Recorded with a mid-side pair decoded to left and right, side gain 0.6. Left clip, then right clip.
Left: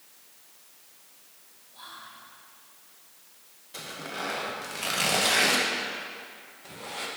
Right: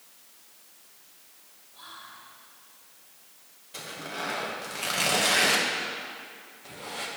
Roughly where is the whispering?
Ahead.